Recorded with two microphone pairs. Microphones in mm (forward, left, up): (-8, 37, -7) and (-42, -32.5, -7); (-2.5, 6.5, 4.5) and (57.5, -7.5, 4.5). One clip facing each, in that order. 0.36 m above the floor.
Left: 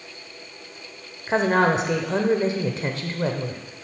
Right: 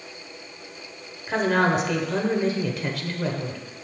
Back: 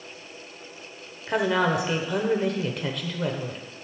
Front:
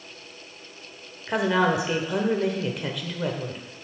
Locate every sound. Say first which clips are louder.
1.3 s a woman speaking: left 2 dB, front 1 dB; 70° left, 0.9 m